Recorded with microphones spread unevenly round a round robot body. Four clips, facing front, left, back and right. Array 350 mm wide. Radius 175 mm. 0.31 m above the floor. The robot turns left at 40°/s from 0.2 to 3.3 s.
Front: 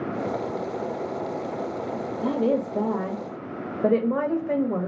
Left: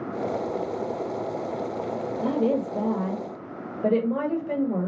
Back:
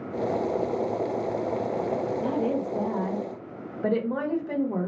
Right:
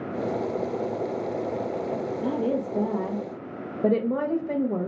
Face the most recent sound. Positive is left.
turn(degrees=-25)